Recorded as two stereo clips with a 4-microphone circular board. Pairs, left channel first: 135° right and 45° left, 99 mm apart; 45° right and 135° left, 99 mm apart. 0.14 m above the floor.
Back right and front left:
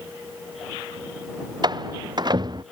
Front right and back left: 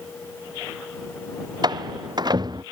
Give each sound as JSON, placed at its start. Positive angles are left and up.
{"t": 1.6, "sound": "a door slam", "azimuth_deg": 90}